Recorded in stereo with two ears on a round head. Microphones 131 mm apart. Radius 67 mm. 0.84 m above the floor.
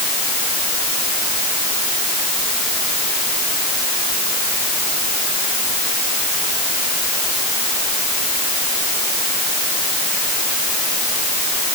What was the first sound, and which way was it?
Only background noise.